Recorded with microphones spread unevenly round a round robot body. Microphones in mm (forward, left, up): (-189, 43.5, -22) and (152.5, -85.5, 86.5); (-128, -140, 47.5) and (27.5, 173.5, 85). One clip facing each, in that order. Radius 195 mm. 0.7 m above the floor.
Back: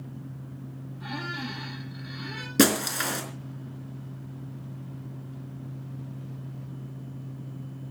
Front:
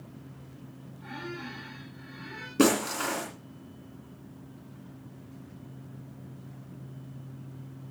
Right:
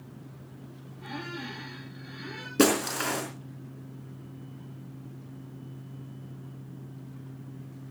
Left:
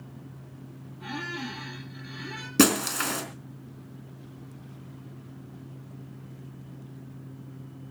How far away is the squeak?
About 5.5 m.